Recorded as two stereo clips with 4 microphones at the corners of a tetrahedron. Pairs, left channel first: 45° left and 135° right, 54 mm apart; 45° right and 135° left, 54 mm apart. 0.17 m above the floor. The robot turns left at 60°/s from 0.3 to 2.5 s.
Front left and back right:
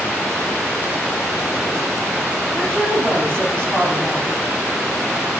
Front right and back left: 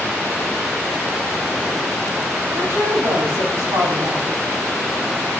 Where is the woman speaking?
120° left, 4.5 m.